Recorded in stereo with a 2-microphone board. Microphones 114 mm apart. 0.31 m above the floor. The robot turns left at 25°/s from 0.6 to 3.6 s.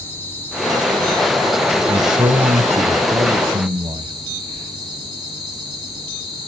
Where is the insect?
20° left, 3.5 m; by 6.5 s 55° right, 3.5 m.